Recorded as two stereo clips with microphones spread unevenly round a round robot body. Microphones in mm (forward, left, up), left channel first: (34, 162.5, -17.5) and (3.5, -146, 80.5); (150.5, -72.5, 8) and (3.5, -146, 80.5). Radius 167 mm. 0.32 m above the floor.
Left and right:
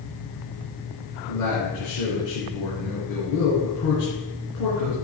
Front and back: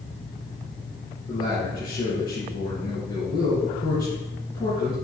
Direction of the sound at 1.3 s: 95° left.